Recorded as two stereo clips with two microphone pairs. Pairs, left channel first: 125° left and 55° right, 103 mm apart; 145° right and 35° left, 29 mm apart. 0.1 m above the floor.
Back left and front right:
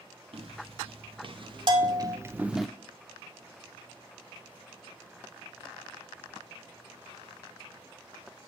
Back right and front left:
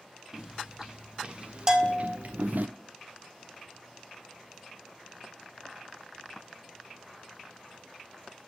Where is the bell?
30° right, 0.7 m.